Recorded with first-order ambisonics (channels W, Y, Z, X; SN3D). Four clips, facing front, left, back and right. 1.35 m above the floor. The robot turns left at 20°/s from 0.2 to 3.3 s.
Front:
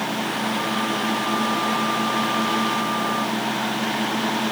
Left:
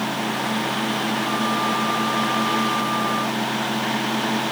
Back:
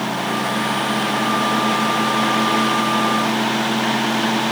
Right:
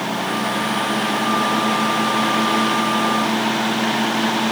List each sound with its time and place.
Only background noise.